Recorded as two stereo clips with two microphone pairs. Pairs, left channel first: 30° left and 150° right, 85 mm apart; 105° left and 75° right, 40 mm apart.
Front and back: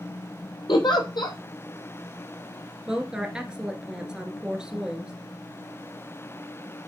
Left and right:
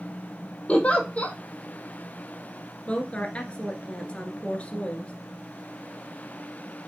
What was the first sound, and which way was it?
A giggle, 50° left.